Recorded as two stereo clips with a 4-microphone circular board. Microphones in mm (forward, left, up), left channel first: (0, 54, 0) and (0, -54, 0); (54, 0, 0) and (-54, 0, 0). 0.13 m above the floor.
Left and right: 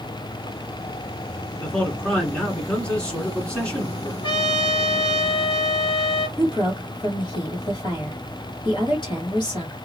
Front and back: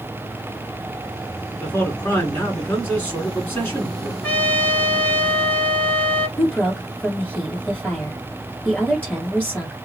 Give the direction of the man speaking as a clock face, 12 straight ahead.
11 o'clock.